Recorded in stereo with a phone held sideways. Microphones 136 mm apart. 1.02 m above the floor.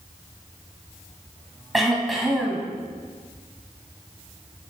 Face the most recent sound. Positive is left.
turn(degrees=0)  # may be behind; listen again after turning